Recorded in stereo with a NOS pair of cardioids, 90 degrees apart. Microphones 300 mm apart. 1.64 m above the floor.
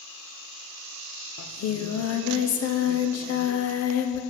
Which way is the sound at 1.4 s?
60° left.